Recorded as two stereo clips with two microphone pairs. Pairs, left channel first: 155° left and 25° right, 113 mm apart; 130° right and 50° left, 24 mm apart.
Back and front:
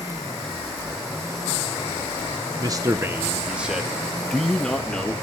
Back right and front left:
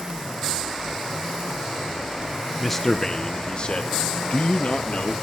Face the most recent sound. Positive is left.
turn(degrees=-120)